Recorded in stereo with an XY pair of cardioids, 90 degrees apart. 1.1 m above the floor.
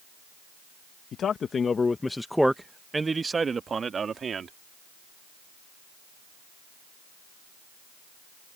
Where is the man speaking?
65° left; by 4.5 s 50° right.